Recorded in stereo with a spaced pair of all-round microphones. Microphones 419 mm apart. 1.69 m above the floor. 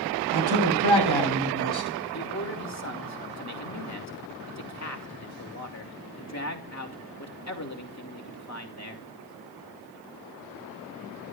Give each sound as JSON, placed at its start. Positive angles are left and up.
{"t": 0.3, "sound": "a man speaking", "side_deg": -60, "distance_m": 8.0}
{"t": 2.1, "sound": "a man speaking", "side_deg": 40, "distance_m": 3.0}